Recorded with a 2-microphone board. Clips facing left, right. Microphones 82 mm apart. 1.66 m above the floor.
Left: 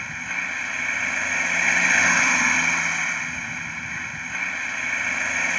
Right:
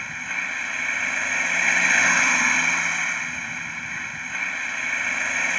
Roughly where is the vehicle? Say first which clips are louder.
Even; centre.